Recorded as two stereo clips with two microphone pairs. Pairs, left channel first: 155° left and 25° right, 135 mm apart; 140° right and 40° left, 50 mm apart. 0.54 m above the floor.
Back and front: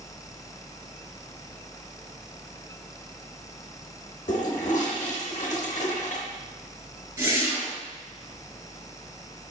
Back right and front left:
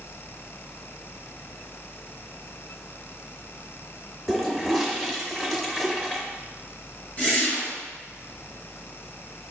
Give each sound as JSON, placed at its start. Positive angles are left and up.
{"t": 4.3, "sound": "a toilet flushing", "azimuth_deg": 130, "distance_m": 0.7}
{"t": 7.2, "sound": "a whoosh", "azimuth_deg": -95, "distance_m": 1.5}